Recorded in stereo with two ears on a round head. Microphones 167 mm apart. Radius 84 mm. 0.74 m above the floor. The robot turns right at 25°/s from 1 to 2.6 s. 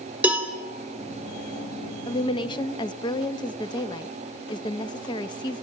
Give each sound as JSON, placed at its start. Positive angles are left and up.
{"t": 0.2, "sound": "a cowbell", "side_deg": -10, "distance_m": 2.5}
{"t": 2.1, "sound": "a woman speaking", "side_deg": 30, "distance_m": 0.6}